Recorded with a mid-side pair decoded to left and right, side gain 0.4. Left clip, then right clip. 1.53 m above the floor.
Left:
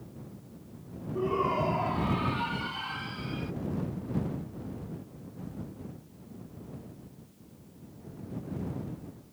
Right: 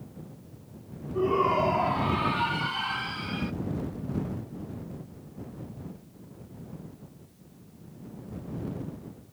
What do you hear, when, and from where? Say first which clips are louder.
1.1 s a shout: right 4 dB; 30° right; by 3.5 s 50° right